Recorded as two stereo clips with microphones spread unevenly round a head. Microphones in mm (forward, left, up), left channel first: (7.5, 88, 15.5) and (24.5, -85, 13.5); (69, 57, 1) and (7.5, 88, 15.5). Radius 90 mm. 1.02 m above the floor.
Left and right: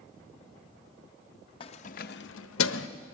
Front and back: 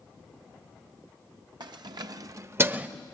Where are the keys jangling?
160° left, 0.6 m; by 2.9 s 85° left, 0.6 m.